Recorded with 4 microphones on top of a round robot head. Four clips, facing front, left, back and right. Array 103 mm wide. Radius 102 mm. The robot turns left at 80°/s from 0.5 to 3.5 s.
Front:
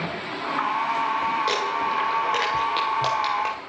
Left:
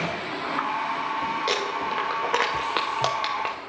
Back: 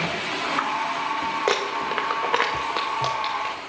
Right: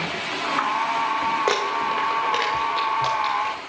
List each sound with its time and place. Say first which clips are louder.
1.5 s crumpling: right 4 dB, even; 140° right, 1.0 m; by 3.5 s 60° left, 1.0 m